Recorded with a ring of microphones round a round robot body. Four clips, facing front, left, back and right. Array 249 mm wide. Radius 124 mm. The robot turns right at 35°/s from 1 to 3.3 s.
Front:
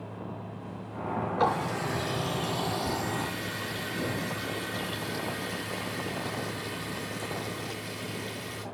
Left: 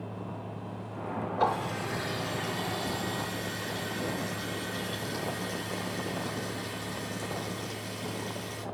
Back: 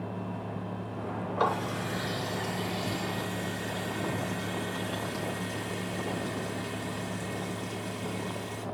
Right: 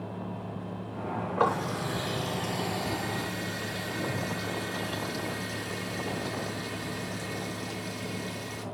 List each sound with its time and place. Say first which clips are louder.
1.4 s a running tap: right 2 dB, front 1 dB; 80° right, 3.5 m; by 8.7 s 10° right, 3.5 m